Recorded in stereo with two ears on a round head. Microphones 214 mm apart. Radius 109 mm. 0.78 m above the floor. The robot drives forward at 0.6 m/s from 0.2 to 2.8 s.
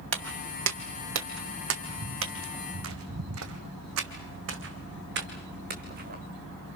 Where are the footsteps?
60° right (ahead or behind), 1.7 m; by 6.2 s 35° right (ahead or behind), 3 m.